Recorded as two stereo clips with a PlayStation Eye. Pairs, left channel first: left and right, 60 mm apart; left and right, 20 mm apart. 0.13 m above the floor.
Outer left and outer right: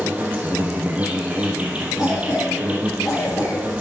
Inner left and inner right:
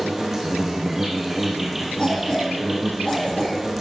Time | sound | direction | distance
0.0 | an insect | 25° right (ahead or behind) | 2.5 m
2.0 | a cough | 60° left (ahead or behind) | 3.5 m